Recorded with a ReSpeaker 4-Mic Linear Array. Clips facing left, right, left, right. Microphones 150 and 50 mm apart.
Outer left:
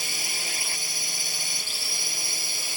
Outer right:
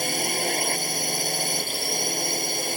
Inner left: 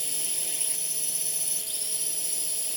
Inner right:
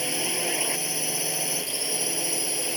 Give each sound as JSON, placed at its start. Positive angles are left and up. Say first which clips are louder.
{"t": 0.0, "sound": "a drone", "louder": "outer right 12 dB, inner right 12 dB", "side_deg": -55}